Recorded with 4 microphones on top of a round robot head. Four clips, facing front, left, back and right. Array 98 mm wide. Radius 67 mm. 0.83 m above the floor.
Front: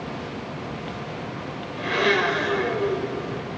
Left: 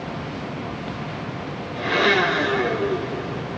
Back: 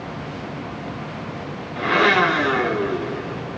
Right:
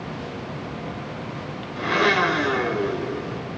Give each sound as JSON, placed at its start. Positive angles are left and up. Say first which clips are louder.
{"t": 1.8, "sound": "a blender", "louder": "left 1 dB, back 5 dB", "azimuth_deg": -160, "distance_m": 2.0}